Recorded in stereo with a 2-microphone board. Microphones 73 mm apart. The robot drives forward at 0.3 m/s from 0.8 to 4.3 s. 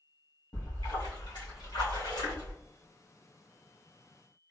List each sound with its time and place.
0.5 s a splash: 75° left (ahead or behind), 1.9 m